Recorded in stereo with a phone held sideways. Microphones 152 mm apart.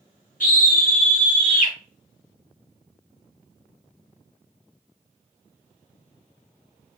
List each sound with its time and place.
0.4 s a scream: 60° left (ahead or behind), 1.7 m